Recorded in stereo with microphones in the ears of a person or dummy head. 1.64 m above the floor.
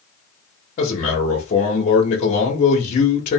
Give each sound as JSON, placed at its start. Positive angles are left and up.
{"t": 0.8, "sound": "a man speaking", "side_deg": 40, "distance_m": 0.7}